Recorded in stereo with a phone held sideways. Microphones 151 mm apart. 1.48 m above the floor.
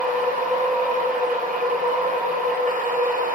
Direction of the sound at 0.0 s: 65° right (ahead or behind).